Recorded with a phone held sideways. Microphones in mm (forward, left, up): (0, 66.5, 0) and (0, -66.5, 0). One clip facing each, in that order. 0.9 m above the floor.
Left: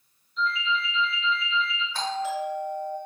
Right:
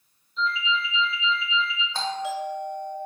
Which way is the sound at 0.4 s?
35° right (ahead or behind).